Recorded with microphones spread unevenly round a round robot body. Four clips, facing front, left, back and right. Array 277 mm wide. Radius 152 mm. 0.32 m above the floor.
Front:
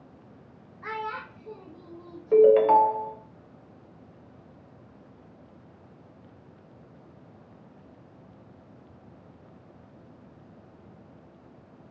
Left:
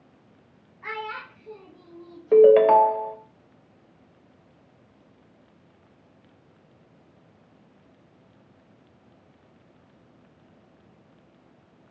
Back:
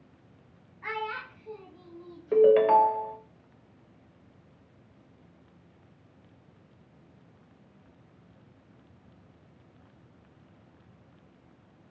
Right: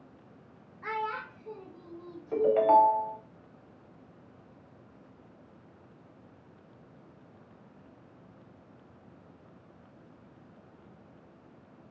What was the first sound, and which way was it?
A child speaking, 35° right.